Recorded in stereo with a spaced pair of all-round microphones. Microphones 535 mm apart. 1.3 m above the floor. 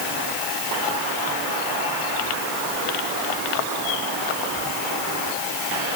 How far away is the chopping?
No chopping in this recording.